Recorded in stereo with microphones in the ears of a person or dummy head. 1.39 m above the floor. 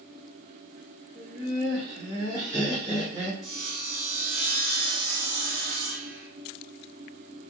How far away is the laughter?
About 1.2 m.